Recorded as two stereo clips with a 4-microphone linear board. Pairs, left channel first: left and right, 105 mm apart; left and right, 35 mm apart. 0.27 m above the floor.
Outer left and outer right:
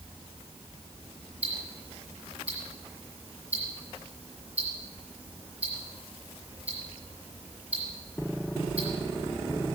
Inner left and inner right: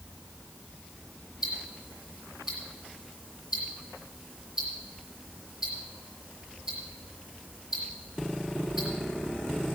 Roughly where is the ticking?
Centre.